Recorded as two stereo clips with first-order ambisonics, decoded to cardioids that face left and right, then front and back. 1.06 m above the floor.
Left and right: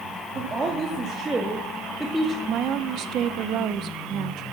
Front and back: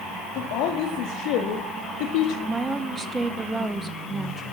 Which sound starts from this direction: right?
A woman speaking, at 2.5 s.